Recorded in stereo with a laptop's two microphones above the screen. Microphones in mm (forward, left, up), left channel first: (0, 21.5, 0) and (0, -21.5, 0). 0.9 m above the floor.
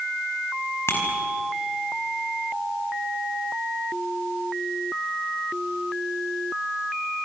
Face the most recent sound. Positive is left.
turn(degrees=90)